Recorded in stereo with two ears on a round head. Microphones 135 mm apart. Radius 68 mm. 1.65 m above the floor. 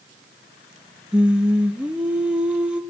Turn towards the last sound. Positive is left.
turn(degrees=-5)  # may be behind; listen again after turning